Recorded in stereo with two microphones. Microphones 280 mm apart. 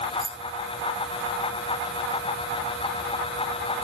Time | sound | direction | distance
0.2 | keys jangling | 45° left (ahead or behind) | 1.2 m